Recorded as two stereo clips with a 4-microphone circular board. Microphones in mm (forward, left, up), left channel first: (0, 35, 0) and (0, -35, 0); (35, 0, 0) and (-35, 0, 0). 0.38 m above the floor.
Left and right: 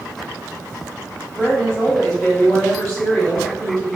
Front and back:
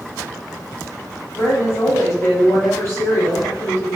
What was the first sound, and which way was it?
A woman speaking, 25° left.